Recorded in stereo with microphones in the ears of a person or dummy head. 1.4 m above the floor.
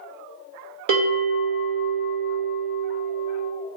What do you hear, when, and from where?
0.9 s a bell: 80° right, 2.0 m